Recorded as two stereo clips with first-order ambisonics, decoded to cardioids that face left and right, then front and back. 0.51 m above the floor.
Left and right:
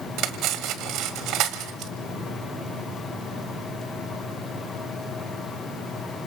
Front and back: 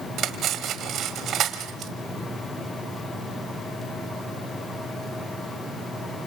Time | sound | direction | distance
0.2 | cutlery clinking | 125° right | 1.4 m